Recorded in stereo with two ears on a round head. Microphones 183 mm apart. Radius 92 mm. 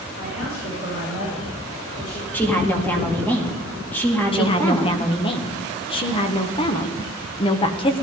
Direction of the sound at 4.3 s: 25° left (ahead or behind).